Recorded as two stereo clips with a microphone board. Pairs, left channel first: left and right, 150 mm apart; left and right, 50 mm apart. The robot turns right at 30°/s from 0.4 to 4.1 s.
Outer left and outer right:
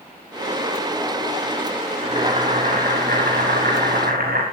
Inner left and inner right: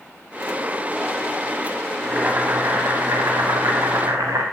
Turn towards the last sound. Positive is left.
turn(degrees=-85)